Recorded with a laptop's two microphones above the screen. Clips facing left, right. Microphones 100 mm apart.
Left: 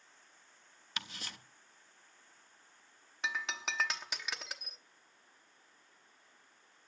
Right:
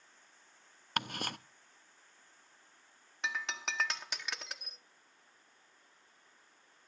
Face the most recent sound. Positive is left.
turn(degrees=0)  # may be behind; listen again after turning